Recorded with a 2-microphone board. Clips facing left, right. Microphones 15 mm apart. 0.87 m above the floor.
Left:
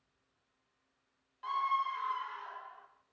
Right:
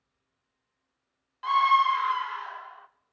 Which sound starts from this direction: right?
A scream, at 1.4 s.